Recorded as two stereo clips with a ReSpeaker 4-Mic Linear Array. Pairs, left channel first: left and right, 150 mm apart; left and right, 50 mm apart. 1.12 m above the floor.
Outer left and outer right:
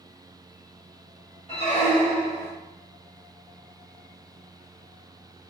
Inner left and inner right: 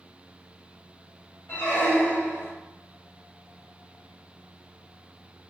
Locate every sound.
1.5 s a squeak: 45° left (ahead or behind), 1.7 m